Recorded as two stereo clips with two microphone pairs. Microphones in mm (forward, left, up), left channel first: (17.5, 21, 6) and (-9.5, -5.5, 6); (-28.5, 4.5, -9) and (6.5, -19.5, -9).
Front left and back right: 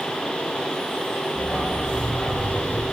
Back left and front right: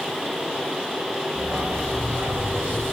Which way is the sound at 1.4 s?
Straight ahead.